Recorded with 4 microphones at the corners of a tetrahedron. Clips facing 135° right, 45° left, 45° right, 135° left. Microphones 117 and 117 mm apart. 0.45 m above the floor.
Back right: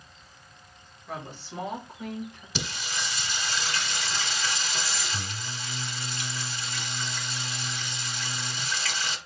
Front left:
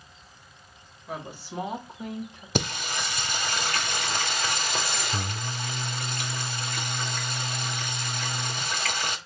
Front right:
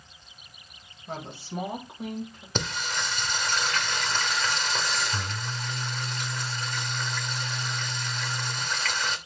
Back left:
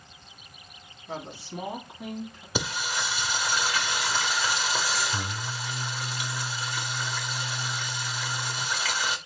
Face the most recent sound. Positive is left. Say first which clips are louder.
# front left 6 dB, back left 1 dB
turn(degrees=55)